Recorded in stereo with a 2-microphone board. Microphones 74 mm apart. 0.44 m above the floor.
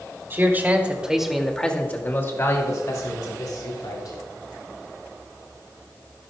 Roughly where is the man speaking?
Right.